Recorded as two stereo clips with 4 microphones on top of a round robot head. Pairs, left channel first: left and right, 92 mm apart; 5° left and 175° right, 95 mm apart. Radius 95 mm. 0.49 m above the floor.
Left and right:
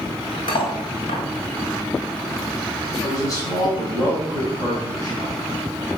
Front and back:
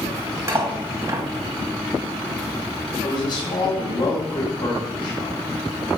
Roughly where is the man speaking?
Ahead left.